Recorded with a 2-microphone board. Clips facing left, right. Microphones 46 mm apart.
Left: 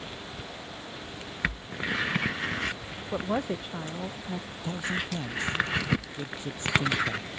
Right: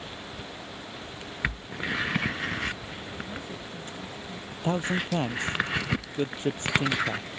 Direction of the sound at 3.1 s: 70° left (ahead or behind).